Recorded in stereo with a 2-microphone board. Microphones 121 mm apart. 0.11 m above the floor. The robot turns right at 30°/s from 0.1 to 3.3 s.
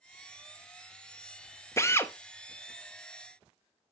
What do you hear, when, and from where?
1.8 s a drill: 25° left (ahead or behind), 0.5 m; by 2.1 s 20° left (ahead or behind), 0.5 m